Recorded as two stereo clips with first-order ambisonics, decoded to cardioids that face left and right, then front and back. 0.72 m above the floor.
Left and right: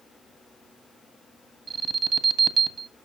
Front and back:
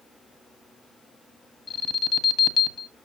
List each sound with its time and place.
1.7 s an alarm: 50° right, 1.4 m